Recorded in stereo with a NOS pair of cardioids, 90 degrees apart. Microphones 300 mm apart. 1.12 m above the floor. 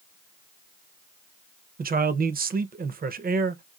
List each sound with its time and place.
1.8 s a man speaking: 30° right, 0.6 m